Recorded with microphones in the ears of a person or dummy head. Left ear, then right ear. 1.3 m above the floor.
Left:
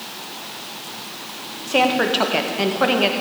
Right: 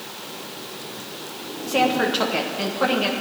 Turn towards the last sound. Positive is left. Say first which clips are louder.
# left 3 dB
turn(degrees=15)  # may be behind; listen again after turning